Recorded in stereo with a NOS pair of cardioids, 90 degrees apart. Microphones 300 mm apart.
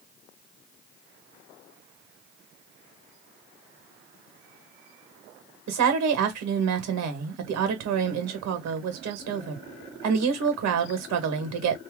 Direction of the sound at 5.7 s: 70° right.